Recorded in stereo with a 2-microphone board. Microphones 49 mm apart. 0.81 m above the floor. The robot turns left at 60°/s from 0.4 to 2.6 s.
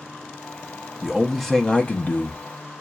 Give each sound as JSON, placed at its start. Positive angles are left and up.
{"t": 1.0, "sound": "a man speaking", "azimuth_deg": -165, "distance_m": 0.7}